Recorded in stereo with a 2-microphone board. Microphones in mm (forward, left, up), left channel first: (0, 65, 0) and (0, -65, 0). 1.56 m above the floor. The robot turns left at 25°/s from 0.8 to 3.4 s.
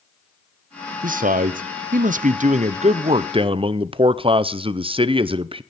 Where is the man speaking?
80° right, 0.7 m; by 5.6 s 140° right, 0.7 m.